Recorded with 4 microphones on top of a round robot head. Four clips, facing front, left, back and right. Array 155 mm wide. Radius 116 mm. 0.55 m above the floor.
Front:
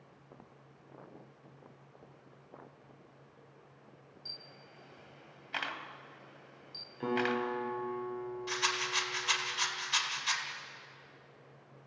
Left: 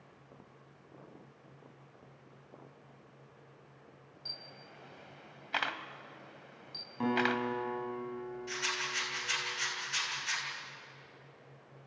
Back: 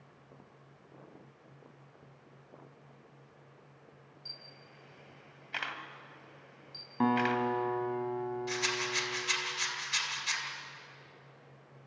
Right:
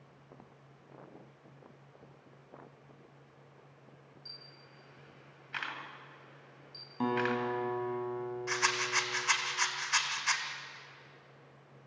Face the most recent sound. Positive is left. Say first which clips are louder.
# right 8 dB, back 1 dB
turn(degrees=-60)